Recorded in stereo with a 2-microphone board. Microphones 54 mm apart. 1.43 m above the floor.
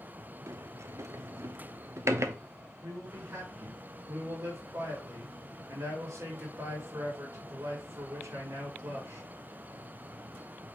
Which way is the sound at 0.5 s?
60° right (ahead or behind).